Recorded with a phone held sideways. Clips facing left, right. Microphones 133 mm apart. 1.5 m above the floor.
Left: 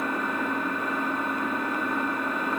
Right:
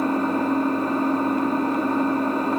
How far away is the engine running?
About 1.7 m.